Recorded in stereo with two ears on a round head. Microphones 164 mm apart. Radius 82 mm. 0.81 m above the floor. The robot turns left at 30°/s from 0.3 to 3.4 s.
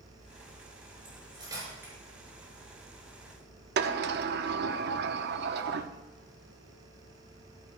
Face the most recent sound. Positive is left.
turn(degrees=-60)  # may be behind; listen again after turning